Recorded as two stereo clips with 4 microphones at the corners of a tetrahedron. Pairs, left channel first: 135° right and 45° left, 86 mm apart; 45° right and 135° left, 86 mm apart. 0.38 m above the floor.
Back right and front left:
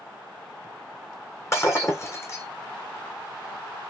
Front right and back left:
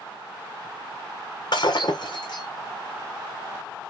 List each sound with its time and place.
1.5 s breaking glass: 80° right, 1.7 m